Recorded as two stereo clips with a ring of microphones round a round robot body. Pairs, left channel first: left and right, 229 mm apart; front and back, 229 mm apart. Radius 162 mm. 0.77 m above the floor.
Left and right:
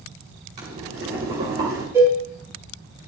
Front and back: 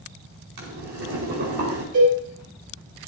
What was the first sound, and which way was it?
Boiling, 145° right.